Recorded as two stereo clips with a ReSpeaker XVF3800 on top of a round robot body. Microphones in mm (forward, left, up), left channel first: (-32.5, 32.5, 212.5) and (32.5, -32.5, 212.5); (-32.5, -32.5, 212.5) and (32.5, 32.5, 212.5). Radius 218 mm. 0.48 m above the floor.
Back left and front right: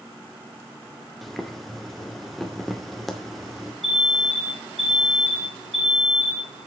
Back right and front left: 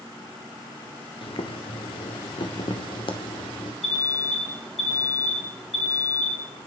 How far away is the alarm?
About 6 m.